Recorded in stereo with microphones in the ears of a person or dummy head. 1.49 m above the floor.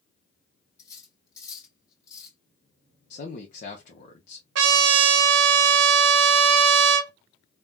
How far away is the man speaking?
About 0.7 m.